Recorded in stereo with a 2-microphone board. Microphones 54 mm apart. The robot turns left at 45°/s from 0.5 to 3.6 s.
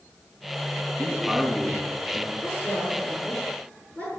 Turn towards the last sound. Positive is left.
turn(degrees=20)  # may be behind; listen again after turning